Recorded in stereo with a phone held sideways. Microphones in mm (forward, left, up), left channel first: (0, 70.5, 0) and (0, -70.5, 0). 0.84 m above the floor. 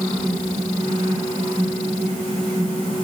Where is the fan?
50° right (ahead or behind), 5 m.